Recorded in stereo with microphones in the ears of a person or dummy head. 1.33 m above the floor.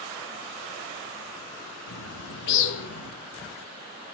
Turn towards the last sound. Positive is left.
turn(degrees=60)  # may be behind; listen again after turning